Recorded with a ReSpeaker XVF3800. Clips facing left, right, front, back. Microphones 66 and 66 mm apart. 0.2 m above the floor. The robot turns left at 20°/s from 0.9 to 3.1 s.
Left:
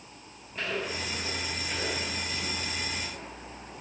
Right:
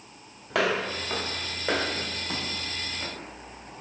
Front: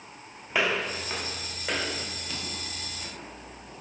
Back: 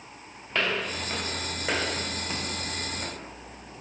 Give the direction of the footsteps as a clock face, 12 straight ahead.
3 o'clock.